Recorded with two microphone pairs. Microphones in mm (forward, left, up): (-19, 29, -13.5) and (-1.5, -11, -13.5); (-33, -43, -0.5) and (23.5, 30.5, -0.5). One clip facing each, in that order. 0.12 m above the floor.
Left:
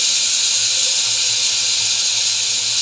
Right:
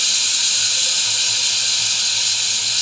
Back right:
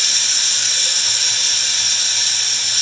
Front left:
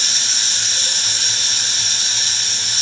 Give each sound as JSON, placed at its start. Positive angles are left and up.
{"t": 0.0, "sound": "running water", "azimuth_deg": 20, "distance_m": 1.9}